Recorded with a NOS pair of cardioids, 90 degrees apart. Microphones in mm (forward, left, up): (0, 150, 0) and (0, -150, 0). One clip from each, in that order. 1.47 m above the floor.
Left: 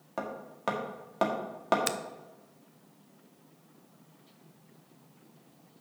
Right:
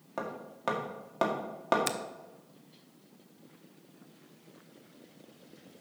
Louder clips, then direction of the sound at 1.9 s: Left 1 dB; 5° left.